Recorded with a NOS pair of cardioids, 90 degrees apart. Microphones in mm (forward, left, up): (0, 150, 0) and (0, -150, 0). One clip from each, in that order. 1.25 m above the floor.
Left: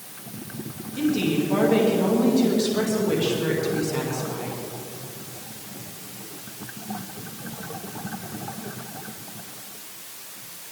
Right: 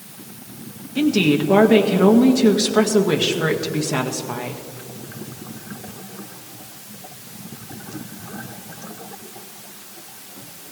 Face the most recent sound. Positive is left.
turn(degrees=-70)